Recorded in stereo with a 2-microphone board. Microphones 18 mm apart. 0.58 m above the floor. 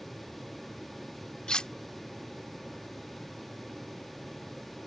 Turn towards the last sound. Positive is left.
turn(degrees=60)  # may be behind; listen again after turning